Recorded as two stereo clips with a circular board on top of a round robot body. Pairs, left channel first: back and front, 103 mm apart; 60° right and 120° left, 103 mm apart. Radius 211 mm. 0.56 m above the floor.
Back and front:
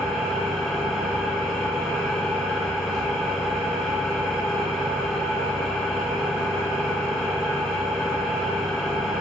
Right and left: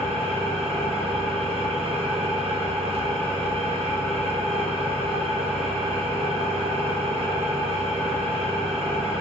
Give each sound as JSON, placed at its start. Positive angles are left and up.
{"t": 0.0, "sound": "an engine running", "azimuth_deg": 90, "distance_m": 0.8}